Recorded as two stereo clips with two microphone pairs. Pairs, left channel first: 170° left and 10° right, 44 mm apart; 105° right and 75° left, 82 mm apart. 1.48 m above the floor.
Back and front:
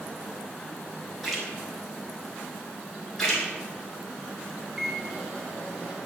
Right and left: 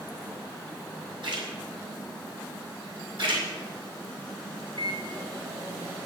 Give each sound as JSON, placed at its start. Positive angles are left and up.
{"t": 1.2, "sound": "a splash", "azimuth_deg": 85, "distance_m": 4.0}
{"t": 3.2, "sound": "a splash", "azimuth_deg": 90, "distance_m": 5.0}
{"t": 4.8, "sound": "a microwave", "azimuth_deg": 70, "distance_m": 3.5}